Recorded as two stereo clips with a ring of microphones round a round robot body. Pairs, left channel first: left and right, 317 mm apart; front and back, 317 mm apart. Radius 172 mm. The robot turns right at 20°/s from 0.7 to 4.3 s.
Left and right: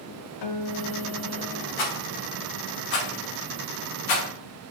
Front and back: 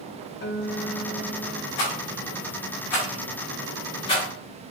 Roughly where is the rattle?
Ahead left.